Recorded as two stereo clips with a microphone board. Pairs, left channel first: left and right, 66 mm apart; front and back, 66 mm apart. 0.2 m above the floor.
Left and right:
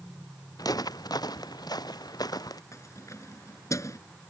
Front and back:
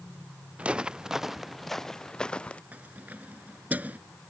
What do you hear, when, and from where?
0.6 s footsteps: 110° left; by 2.6 s 70° left
2.7 s keys jangling: 120° left